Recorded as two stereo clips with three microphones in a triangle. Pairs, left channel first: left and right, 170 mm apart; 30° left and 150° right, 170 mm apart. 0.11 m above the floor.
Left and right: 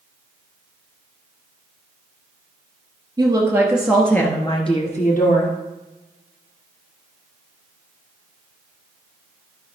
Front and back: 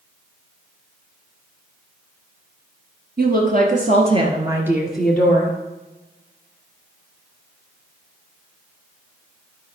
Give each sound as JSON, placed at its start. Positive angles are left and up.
{"t": 3.2, "sound": "a woman speaking", "azimuth_deg": -155, "distance_m": 2.5}